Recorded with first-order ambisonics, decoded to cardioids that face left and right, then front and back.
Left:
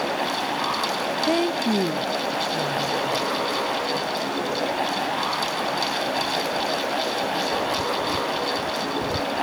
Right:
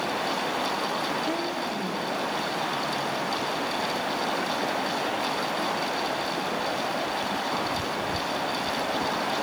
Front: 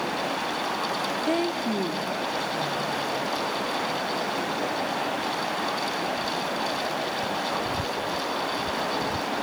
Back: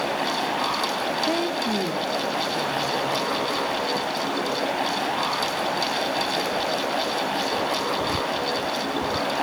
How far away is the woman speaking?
About 0.6 m.